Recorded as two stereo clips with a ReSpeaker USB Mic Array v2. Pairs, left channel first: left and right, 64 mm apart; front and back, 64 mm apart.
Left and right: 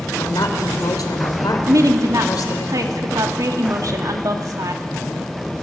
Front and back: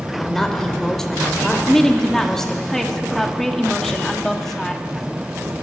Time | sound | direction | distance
0.2 | a woman speaking | 80° left | 3 m
1.7 | a woman speaking | 85° right | 1.8 m